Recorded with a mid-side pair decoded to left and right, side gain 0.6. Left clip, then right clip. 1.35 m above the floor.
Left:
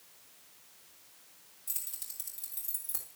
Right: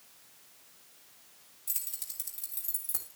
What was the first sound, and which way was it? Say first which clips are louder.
Keys jangling: right 2 dB; 15° right.